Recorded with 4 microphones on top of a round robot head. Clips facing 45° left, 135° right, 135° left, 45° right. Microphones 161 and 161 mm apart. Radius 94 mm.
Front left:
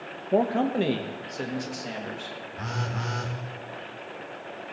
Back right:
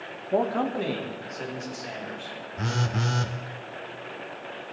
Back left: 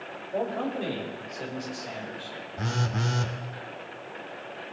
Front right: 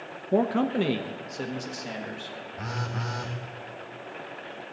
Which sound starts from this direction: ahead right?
A man speaking, at 0.3 s.